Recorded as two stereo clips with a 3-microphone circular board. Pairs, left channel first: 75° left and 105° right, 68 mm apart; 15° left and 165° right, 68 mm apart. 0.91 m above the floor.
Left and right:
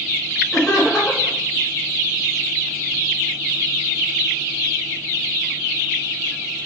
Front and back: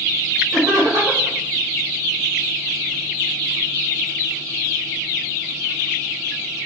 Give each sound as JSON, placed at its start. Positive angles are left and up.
{"t": 0.5, "sound": "laughter", "azimuth_deg": 165, "distance_m": 4.0}